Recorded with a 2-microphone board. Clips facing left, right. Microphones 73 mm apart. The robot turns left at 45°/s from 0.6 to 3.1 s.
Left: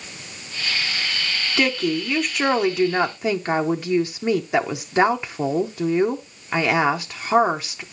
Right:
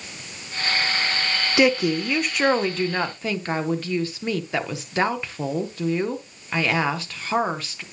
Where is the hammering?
No hammering in this recording.